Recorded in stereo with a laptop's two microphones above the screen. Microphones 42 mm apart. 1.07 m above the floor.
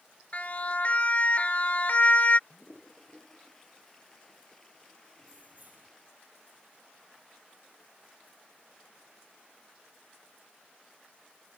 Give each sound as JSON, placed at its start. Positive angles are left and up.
{"t": 0.3, "sound": "a siren", "side_deg": 40}
{"t": 2.5, "sound": "a toilet flushing", "side_deg": 15}
{"t": 5.2, "sound": "keys jangling", "side_deg": -45}